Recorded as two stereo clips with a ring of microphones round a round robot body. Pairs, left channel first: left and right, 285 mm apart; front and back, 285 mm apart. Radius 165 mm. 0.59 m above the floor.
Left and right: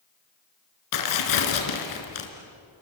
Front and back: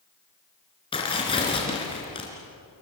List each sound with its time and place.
0.9 s tearing paper: 75° left, 3.5 m